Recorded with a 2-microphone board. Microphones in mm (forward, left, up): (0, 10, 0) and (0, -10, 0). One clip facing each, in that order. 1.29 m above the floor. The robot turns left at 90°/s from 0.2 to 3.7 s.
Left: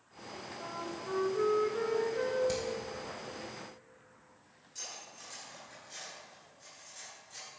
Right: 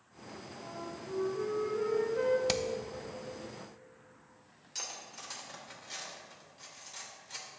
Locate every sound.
0.6 s a flute: 140° left, 1.0 m; by 2.4 s 20° right, 1.0 m
2.5 s hammering: 55° right (ahead or behind), 0.7 m; by 2.6 s 65° right (ahead or behind), 0.7 m
4.8 s cutlery clinking: 60° right (ahead or behind), 2.5 m